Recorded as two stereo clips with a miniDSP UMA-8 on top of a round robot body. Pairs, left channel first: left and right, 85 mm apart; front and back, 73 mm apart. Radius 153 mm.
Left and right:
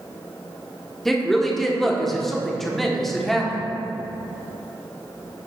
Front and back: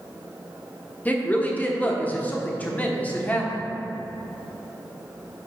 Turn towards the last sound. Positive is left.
turn(degrees=10)